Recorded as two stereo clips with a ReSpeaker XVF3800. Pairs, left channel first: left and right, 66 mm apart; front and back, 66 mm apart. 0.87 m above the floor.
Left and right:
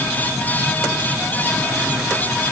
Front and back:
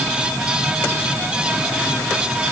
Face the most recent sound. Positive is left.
No sound to turn to.